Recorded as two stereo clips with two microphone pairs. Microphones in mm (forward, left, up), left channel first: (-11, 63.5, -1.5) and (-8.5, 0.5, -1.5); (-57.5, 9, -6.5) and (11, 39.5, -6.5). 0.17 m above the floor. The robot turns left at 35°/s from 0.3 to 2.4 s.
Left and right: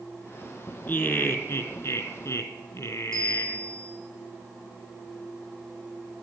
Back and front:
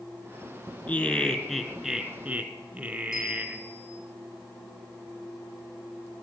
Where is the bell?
175° left, 9 m.